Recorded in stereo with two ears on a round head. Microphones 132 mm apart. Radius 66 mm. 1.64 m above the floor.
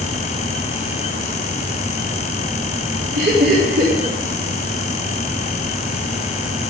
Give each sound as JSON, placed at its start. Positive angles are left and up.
{"t": 3.1, "sound": "laughter", "side_deg": -75, "distance_m": 4.0}